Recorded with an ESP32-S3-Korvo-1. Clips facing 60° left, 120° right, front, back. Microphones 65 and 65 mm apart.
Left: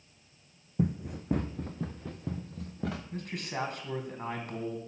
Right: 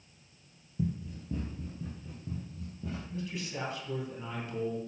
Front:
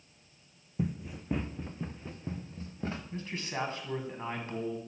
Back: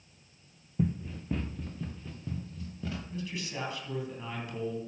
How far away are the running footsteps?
About 0.7 m.